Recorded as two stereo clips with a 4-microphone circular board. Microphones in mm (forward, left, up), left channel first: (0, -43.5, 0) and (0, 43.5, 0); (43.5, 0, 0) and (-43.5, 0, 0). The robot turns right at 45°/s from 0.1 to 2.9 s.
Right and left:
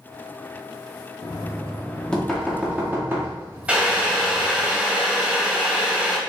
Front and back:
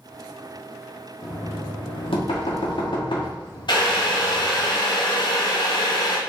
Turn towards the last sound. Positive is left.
turn(degrees=15)